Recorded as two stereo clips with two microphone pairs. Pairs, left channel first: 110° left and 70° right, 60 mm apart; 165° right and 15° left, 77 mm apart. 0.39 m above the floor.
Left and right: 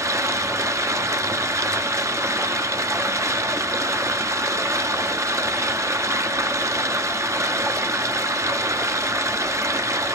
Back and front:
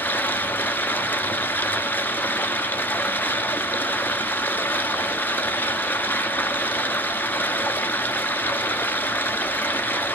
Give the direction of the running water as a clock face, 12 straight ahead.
3 o'clock.